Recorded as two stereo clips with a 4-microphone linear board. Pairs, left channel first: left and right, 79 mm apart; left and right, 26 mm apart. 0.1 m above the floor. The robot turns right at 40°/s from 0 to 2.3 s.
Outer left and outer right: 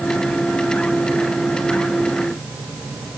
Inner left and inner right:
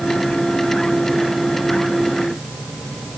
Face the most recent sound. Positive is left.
No sound to turn to.